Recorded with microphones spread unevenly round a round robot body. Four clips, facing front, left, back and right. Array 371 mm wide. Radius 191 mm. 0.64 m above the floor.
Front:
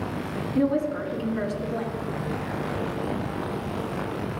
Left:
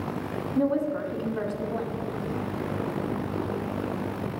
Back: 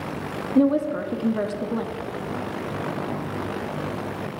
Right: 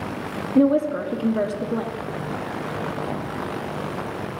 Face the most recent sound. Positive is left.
turn(degrees=-135)